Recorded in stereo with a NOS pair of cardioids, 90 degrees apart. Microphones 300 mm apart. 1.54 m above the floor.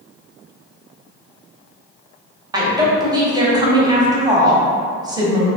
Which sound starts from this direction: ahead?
A woman speaking, at 2.5 s.